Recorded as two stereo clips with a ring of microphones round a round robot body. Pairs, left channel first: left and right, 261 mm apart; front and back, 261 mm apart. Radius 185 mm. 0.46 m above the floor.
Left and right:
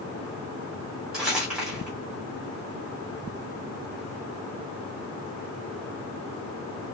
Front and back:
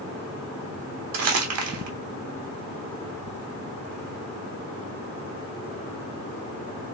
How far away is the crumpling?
About 1.2 m.